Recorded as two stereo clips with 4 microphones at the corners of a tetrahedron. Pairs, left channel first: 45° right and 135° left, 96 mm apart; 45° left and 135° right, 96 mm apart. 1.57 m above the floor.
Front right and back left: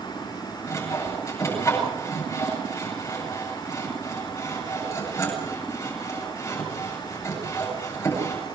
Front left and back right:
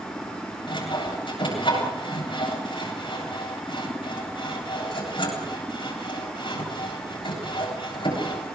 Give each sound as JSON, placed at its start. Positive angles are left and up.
{"t": 0.7, "sound": "sawing", "azimuth_deg": 15, "distance_m": 9.0}